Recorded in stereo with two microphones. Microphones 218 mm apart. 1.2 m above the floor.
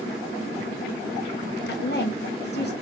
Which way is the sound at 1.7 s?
50° left (ahead or behind).